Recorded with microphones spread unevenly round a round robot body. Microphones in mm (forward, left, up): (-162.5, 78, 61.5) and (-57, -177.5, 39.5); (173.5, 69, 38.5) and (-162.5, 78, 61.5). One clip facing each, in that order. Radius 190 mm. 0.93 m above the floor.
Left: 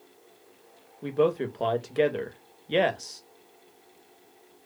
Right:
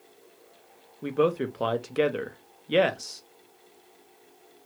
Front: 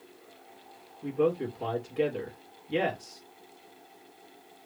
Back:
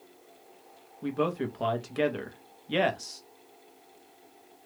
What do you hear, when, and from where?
1.0 s a man speaking: 145° right, 0.8 m